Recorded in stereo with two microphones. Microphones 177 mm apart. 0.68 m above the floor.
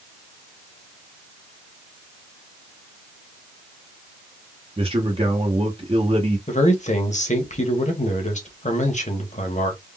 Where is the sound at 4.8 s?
35° right (ahead or behind), 0.8 m.